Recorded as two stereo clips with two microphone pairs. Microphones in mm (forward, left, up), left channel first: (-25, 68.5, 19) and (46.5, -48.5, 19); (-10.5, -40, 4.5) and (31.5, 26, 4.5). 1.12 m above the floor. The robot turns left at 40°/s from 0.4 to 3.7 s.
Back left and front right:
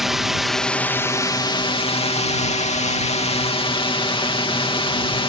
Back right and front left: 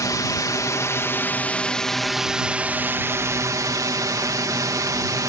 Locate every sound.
0.0 s a drone: 145° right; by 5.3 s 80° left